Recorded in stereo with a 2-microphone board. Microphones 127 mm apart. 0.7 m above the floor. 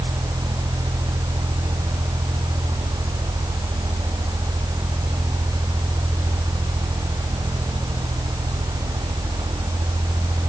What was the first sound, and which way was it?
Only background noise.